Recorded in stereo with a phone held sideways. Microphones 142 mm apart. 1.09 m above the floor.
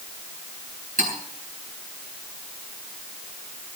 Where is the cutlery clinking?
65° right (ahead or behind), 8 m.